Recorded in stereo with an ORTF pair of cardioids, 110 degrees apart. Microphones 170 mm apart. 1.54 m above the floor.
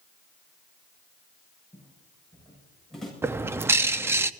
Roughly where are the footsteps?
Ahead.